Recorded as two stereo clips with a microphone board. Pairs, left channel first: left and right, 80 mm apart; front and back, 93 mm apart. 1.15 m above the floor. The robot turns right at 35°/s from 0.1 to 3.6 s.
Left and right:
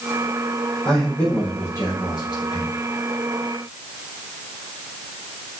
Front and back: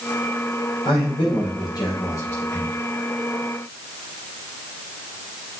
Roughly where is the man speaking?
Ahead.